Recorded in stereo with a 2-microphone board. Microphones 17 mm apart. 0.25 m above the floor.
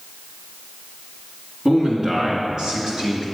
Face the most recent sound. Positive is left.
turn(degrees=-55)  # may be behind; listen again after turning